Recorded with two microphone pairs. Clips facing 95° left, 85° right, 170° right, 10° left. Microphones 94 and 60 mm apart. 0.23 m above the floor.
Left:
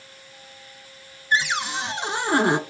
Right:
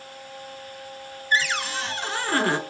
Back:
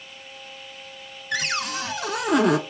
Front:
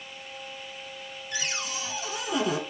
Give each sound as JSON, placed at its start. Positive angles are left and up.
{"t": 1.3, "sound": "a cupboard door", "azimuth_deg": 170, "distance_m": 0.8}